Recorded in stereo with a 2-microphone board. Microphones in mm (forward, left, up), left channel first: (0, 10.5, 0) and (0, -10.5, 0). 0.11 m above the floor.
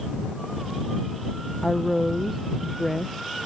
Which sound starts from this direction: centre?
A woman speaking, at 1.6 s.